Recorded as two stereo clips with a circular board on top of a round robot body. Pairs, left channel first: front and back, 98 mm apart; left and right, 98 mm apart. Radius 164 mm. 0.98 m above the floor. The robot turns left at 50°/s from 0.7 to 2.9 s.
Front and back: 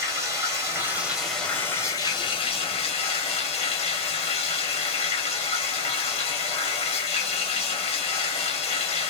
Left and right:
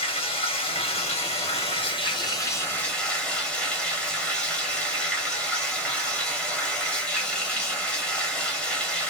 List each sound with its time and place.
0.0 s running water: 115° left, 1.6 m; by 9.1 s 5° left, 1.6 m